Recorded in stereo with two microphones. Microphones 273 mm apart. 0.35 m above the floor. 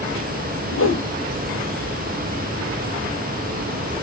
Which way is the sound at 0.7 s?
50° left (ahead or behind).